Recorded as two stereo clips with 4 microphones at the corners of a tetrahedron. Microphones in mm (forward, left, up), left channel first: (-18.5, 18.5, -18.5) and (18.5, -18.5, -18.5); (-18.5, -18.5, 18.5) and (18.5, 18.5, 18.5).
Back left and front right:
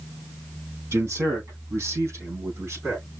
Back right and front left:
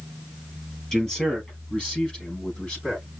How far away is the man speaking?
About 2.5 m.